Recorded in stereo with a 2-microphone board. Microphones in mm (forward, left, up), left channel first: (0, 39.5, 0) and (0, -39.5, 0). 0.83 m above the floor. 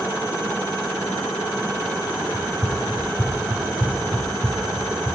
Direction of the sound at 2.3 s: 10° right (ahead or behind).